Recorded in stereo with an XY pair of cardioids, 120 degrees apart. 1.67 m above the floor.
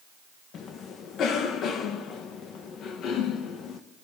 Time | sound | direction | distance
0.5 | a cough | 60° left | 1.8 m